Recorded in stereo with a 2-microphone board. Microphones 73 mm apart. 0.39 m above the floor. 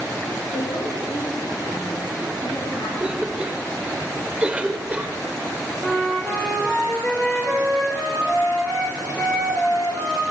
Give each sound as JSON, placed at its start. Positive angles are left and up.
{"t": 0.5, "sound": "a woman speaking", "side_deg": 80, "distance_m": 6.5}
{"t": 3.0, "sound": "a cough", "side_deg": -15, "distance_m": 1.4}
{"t": 5.8, "sound": "a flute", "side_deg": 25, "distance_m": 5.0}